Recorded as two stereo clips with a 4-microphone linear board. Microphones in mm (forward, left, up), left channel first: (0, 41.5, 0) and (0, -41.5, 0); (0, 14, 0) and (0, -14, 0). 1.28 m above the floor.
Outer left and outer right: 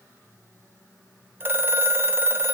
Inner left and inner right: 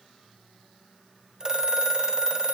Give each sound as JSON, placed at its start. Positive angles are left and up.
{"t": 1.4, "sound": "a phone ringing", "side_deg": -25, "distance_m": 0.5}